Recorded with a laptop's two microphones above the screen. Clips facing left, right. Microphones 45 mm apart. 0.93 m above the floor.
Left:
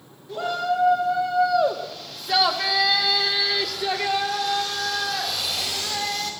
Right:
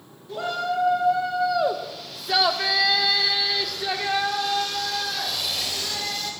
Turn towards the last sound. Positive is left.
turn(degrees=0)  # may be behind; listen again after turning